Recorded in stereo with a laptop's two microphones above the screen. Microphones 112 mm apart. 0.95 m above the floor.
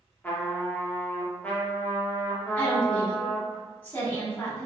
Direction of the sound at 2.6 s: 20° left (ahead or behind).